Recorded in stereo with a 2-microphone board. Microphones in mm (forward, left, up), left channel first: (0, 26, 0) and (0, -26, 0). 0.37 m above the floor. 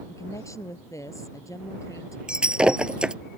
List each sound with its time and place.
0.1 s a woman speaking: 80° left
2.3 s breaking glass: 20° right (ahead or behind)